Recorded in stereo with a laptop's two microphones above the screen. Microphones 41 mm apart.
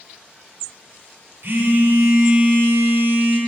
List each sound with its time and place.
1.4 s a phone buzzing: 55° right (ahead or behind), 1.5 m